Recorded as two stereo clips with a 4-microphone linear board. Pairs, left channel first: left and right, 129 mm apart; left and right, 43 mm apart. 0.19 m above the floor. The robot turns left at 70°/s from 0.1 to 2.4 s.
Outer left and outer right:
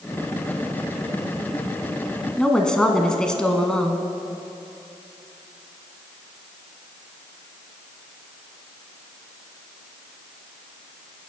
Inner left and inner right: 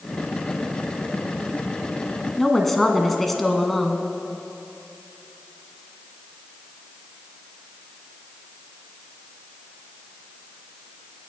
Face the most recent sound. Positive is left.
turn(degrees=5)  # may be behind; listen again after turning